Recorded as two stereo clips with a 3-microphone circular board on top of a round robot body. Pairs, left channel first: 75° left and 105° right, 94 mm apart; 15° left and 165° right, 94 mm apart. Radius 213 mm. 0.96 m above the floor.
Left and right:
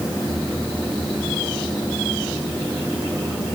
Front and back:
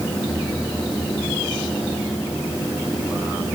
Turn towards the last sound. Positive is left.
No sound to turn to.